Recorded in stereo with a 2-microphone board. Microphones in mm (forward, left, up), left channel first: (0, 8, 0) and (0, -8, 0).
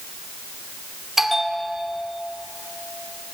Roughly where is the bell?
Centre.